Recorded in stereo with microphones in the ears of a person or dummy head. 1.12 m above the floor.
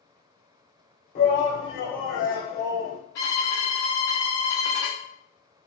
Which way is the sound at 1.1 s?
35° left (ahead or behind).